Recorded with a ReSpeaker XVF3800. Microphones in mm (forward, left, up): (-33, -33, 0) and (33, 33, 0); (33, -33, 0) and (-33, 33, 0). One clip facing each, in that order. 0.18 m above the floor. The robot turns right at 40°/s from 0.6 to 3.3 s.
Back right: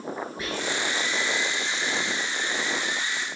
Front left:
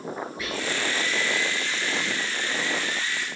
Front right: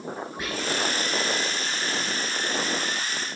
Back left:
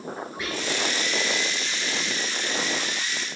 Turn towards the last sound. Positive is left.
turn(degrees=15)